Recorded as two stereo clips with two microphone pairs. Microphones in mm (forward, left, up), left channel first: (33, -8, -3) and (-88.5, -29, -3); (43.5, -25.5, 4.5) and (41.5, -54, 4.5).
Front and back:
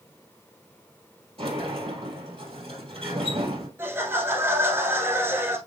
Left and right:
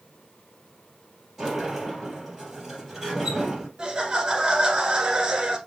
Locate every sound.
1.4 s a sliding door: 170° right, 3 m
3.8 s laughter: 120° right, 1.3 m